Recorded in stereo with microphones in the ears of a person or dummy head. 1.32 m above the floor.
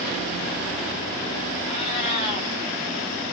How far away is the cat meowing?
About 1.4 m.